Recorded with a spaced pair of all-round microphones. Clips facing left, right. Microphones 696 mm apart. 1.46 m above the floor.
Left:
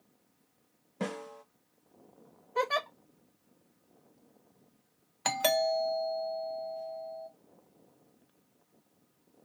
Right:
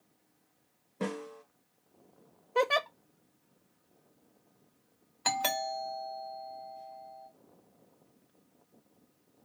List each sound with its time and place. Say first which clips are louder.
1.0 s a snare drum: right 1 dB; 25° left (ahead or behind), 0.6 m
2.5 s a giggle: right 4 dB; 60° right (ahead or behind), 0.5 m
5.2 s a doorbell: left 7 dB; 20° left (ahead or behind), 0.6 m